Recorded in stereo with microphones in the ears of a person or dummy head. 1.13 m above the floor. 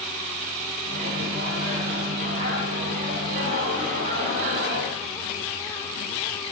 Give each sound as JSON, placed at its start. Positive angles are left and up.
{"t": 0.8, "sound": "a microwave", "side_deg": -50, "distance_m": 1.3}